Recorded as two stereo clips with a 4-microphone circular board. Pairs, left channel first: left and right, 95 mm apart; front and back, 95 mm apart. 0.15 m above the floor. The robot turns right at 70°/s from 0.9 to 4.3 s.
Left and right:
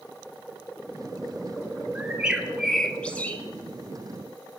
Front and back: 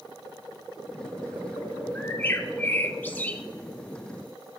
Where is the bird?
50° right, 0.8 m; by 3.4 s 55° left, 0.8 m.